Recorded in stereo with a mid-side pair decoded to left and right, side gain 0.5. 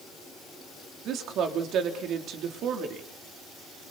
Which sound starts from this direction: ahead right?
A woman speaking, at 1.1 s.